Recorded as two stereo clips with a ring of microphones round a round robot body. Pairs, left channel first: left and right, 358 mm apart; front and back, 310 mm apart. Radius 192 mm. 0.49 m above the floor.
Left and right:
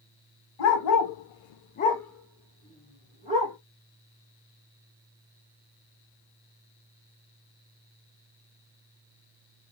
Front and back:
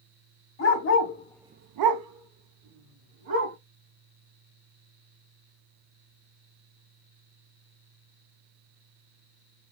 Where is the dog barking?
45° left, 1.4 m; by 3.5 s 160° right, 3 m.